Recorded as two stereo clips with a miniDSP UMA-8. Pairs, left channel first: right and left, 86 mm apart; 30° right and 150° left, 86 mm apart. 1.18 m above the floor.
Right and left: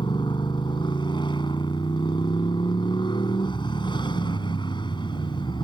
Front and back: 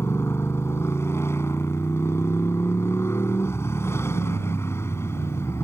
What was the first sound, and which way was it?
A motorcycle, 85° right.